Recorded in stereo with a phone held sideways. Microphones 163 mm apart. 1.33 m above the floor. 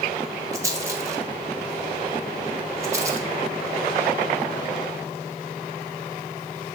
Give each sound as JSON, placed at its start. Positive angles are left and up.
{"t": 0.5, "sound": "a rattle", "side_deg": -20, "distance_m": 1.2}